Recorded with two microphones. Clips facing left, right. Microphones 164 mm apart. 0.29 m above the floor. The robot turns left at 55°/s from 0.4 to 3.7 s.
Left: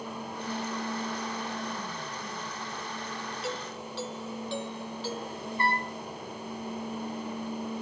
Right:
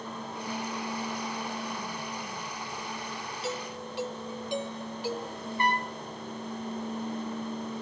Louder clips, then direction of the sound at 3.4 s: Right 3 dB; centre (ahead or behind).